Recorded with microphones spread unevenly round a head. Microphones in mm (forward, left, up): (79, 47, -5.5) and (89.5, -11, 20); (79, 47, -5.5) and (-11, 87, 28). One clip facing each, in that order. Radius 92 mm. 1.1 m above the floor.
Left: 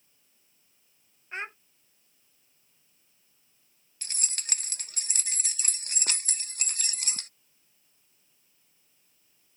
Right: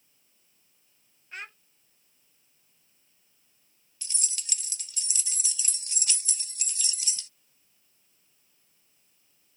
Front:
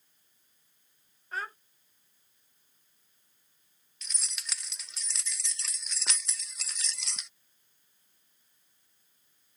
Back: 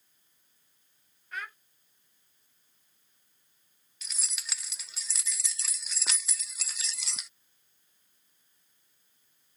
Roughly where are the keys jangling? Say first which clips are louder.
Left 1 dB, even; ahead left.